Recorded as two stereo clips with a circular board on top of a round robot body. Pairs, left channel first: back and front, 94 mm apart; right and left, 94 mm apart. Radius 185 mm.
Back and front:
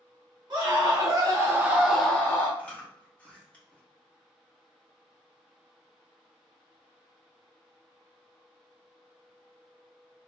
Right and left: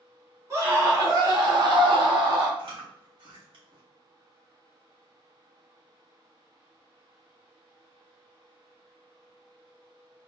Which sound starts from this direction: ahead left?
A scream, at 0.5 s.